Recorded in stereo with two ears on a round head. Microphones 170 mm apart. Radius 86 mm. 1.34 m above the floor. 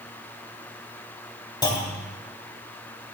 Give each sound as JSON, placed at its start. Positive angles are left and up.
{"t": 1.6, "sound": "a clunk", "side_deg": 20, "distance_m": 1.7}